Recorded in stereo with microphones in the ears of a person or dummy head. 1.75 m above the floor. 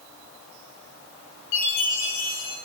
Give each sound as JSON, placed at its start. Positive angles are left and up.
{"t": 1.5, "sound": "a chime", "side_deg": 80, "distance_m": 3.0}